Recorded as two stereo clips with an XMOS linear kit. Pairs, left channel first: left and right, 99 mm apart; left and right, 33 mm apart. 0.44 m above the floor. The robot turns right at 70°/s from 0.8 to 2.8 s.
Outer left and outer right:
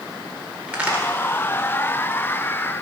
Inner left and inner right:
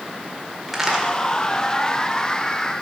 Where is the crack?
10° right (ahead or behind), 1.6 m; by 1.0 s 20° right (ahead or behind), 1.6 m.